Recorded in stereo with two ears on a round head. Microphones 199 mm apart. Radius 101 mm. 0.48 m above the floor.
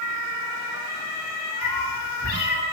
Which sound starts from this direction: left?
A cat meowing, at 1.6 s.